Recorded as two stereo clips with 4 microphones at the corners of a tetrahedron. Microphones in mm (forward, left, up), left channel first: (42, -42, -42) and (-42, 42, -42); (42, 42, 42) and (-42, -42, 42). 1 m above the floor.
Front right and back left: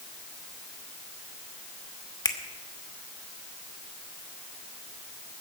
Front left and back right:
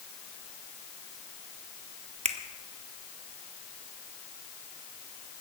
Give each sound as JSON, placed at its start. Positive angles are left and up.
{"t": 2.2, "sound": "a finger snap", "azimuth_deg": -105, "distance_m": 1.1}